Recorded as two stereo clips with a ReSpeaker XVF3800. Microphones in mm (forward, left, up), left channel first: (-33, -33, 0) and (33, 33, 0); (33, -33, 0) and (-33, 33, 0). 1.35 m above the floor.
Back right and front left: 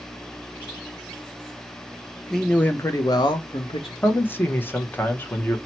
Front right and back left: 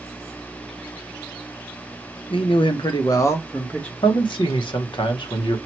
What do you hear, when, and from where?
2.3 s a man speaking: 45° right, 0.6 m; by 3.9 s 120° right, 0.9 m
4.0 s a man speaking: 65° right, 0.7 m